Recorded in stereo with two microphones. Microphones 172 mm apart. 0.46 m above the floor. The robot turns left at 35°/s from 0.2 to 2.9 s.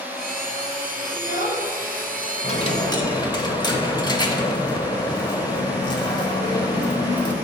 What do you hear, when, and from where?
1.1 s a child speaking: 70° left (ahead or behind), 2.5 m; by 3.0 s 10° left (ahead or behind), 2.5 m
2.4 s a dropped coin: 40° left (ahead or behind), 0.9 m; by 7.3 s 25° left (ahead or behind), 0.9 m